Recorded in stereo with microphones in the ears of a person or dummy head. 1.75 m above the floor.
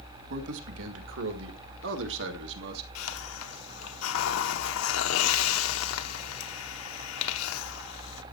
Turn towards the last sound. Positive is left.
turn(degrees=80)